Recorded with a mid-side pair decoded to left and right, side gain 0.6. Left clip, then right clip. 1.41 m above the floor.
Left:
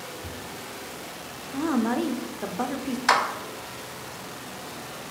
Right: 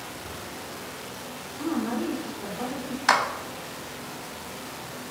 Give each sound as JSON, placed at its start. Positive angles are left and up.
{"t": 0.2, "sound": "a cupboard door", "azimuth_deg": 35, "distance_m": 0.7}
{"t": 1.5, "sound": "a woman speaking", "azimuth_deg": 50, "distance_m": 0.5}
{"t": 3.1, "sound": "a clap", "azimuth_deg": -5, "distance_m": 0.5}